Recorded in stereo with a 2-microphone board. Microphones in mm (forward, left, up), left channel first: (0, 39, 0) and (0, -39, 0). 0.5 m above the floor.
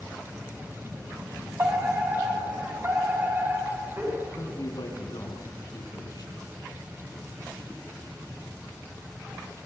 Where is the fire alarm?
35° right (ahead or behind), 6 m.